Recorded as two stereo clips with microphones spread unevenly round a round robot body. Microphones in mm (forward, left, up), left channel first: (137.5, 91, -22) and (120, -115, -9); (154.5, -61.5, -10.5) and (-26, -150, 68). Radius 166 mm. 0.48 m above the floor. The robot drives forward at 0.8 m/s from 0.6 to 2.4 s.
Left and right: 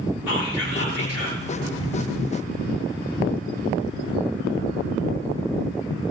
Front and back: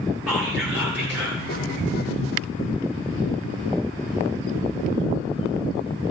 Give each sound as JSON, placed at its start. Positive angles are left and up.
{"t": 0.3, "sound": "whispering", "azimuth_deg": 115, "distance_m": 8.5}